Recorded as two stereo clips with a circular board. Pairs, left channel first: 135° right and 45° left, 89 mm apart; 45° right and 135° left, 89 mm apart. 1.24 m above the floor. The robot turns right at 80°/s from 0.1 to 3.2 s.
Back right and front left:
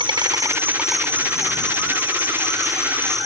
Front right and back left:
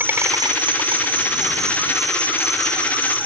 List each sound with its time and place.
0.0 s an insect: 65° left; by 3.3 s 45° right